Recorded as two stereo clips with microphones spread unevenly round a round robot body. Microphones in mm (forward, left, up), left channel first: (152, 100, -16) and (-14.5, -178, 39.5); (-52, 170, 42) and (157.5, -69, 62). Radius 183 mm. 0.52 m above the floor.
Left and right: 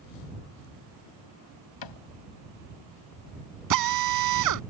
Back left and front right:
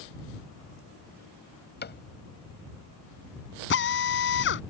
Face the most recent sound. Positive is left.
turn(degrees=-170)